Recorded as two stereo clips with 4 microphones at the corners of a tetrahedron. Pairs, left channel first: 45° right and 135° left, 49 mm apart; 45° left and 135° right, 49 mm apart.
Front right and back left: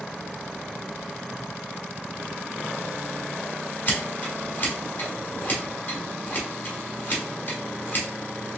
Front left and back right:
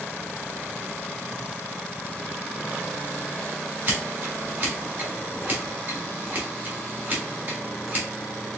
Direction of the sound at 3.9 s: 90° right.